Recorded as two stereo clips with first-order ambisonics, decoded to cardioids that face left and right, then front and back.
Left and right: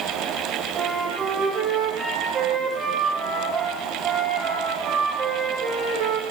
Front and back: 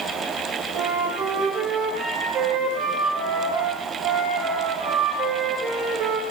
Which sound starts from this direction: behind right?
A flute, at 0.8 s.